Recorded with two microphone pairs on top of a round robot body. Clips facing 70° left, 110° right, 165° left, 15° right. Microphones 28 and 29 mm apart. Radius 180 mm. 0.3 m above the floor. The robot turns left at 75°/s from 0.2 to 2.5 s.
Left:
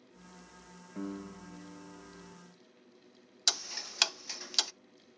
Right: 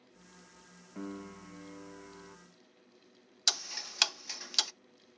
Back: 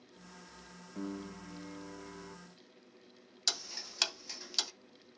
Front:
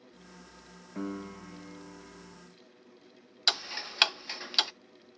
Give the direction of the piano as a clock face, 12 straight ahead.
1 o'clock.